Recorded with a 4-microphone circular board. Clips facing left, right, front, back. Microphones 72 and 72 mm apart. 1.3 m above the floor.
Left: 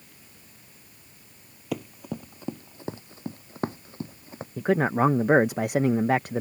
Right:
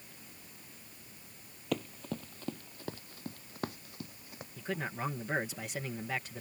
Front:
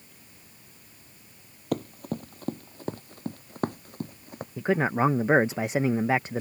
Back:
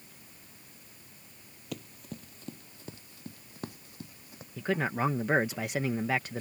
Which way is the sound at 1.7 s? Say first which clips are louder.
Left 3 dB, front 12 dB; 10° left.